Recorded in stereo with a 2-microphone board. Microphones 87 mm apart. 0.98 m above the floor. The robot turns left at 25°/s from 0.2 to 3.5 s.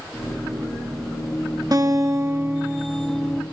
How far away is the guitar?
About 1.5 m.